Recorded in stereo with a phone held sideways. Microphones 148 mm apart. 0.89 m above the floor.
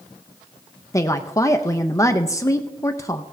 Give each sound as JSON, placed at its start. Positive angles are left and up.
{"t": 0.9, "sound": "a woman speaking", "side_deg": 20, "distance_m": 0.5}